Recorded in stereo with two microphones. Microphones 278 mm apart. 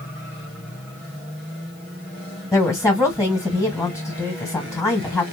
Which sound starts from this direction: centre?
A woman speaking, at 2.5 s.